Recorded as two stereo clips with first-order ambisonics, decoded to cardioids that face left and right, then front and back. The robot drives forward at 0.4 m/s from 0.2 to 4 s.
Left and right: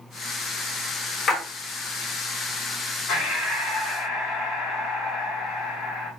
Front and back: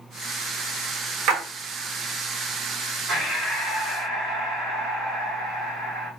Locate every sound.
1.3 s a splash: 150° left, 1.2 m
3.1 s breathing: 115° left, 2.5 m; by 6.1 s 125° left, 2.5 m